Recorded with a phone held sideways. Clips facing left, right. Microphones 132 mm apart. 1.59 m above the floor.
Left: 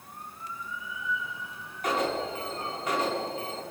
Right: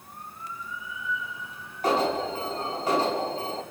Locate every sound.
1.8 s an alarm: 30° right (ahead or behind), 6.5 m